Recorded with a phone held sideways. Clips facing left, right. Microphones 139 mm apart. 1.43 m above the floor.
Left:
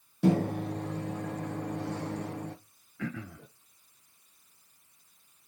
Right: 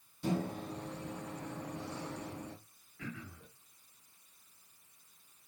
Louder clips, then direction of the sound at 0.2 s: Left 9 dB; 70° left (ahead or behind).